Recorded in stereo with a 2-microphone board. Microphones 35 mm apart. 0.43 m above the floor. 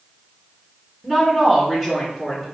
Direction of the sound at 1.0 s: 10° right (ahead or behind).